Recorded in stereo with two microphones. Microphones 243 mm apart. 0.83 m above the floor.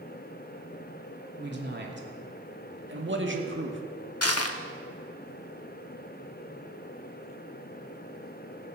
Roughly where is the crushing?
Left.